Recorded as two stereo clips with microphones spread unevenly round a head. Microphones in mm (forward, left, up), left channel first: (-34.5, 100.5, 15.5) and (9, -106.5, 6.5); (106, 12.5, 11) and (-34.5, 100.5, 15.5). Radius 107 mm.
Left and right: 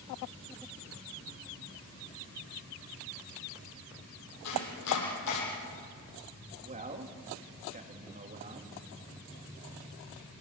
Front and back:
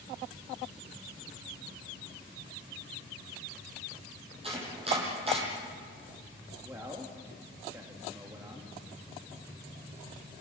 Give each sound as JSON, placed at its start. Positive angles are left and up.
{"t": 4.4, "sound": "chopping", "azimuth_deg": 95, "distance_m": 8.5}
{"t": 6.6, "sound": "a man speaking", "azimuth_deg": -135, "distance_m": 2.5}